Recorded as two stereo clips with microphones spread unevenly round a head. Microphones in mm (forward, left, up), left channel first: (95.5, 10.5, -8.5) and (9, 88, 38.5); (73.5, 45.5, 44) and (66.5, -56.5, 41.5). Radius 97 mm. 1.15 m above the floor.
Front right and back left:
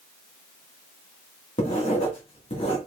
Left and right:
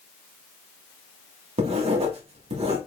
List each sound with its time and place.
1.6 s writing: 85° right, 1.6 m